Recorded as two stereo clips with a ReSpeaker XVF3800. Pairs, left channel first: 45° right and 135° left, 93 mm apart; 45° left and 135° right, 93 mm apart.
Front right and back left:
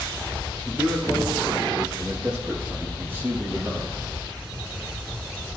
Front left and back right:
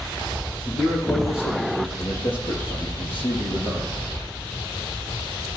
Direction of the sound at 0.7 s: 45° left.